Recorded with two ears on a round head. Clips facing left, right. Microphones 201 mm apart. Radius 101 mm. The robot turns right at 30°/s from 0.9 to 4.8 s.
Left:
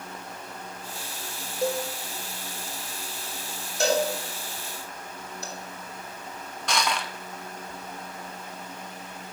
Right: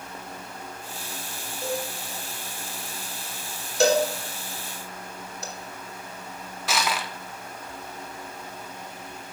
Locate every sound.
1.6 s a cowbell: 60° left (ahead or behind), 1.7 m; by 1.9 s 70° left (ahead or behind), 1.7 m
3.8 s a cowbell: 60° right (ahead or behind), 2.5 m; by 5.5 s 75° right (ahead or behind), 2.5 m
6.7 s crushing: 5° right (ahead or behind), 0.9 m